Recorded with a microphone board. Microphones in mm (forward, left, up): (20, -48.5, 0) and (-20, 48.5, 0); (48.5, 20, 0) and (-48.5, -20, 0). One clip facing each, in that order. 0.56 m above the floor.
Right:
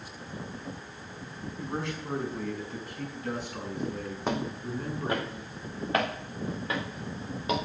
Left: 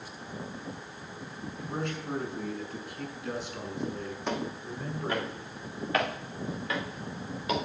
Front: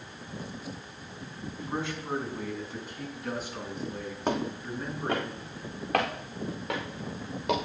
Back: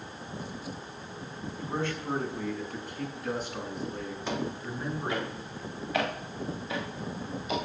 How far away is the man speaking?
About 5 m.